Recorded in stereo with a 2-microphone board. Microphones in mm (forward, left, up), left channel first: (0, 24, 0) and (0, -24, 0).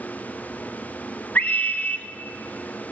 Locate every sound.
1.4 s a scream: 35° left (ahead or behind), 1.9 m